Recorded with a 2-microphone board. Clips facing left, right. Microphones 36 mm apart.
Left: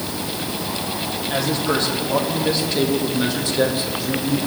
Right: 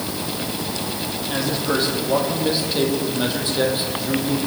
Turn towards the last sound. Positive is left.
turn(degrees=-25)  # may be behind; listen again after turning